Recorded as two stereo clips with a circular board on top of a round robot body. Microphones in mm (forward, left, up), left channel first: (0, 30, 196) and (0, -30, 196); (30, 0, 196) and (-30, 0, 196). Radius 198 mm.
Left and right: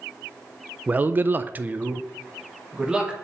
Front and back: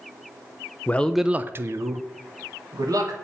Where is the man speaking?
40° right, 0.5 m; by 3.1 s 165° right, 1.5 m.